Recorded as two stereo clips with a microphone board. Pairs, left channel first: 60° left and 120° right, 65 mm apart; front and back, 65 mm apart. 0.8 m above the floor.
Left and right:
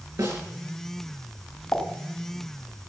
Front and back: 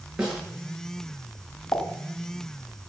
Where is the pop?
15° left, 3 m.